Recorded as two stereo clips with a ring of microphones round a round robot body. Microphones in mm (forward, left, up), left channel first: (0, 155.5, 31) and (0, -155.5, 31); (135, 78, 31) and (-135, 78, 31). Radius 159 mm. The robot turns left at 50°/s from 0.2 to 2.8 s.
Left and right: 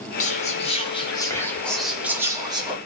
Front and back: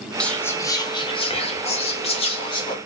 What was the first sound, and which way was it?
Whispering, 80° left.